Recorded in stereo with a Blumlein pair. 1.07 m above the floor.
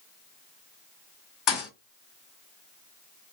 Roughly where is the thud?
Ahead left.